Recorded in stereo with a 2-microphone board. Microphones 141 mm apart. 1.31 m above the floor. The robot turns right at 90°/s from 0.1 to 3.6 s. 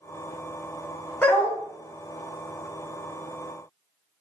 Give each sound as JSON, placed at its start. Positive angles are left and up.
{"t": 1.2, "sound": "a dog barking", "side_deg": 10, "distance_m": 0.8}